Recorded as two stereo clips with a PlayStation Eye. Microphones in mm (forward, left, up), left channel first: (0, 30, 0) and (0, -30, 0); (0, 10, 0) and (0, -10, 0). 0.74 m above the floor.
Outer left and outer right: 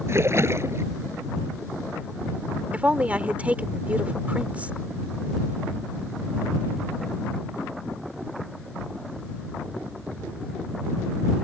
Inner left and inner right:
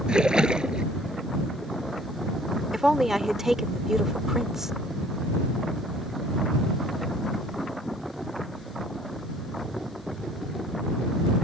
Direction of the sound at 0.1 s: 50° right (ahead or behind).